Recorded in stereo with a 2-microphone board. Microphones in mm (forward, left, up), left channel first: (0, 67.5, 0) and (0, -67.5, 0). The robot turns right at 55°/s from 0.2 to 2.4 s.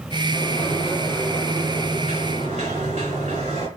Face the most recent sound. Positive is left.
turn(degrees=-110)